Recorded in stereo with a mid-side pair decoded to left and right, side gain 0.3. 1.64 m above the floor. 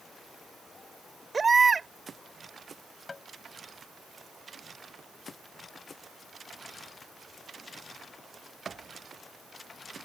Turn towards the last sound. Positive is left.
turn(degrees=45)